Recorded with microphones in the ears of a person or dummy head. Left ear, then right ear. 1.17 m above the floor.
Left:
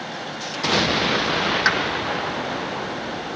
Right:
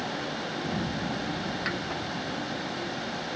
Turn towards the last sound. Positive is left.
turn(degrees=55)  # may be behind; listen again after turning